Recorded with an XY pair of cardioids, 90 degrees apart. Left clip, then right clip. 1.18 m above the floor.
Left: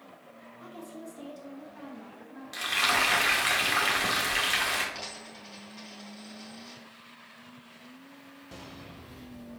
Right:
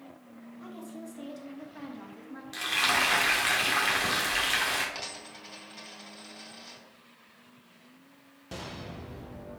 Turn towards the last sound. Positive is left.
turn(degrees=-30)